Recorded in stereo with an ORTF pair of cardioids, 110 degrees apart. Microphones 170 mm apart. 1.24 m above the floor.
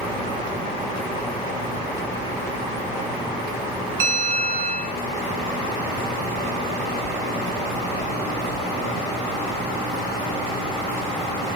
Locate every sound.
4.0 s a bell: 55° right, 1.7 m